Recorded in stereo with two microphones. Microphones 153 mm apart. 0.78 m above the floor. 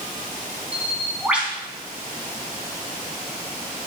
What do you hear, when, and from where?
0.7 s a bird: 5° right (ahead or behind), 4 m